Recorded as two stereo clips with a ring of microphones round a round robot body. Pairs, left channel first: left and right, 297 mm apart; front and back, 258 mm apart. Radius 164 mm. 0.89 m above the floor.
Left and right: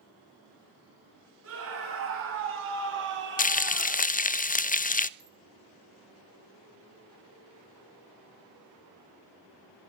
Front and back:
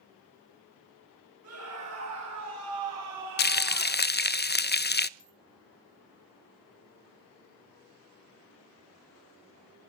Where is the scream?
140° right, 7.5 m; by 4.1 s 150° right, 4 m.